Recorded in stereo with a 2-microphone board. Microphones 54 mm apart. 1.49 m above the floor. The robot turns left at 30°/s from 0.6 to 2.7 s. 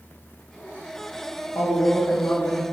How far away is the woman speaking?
About 0.7 m.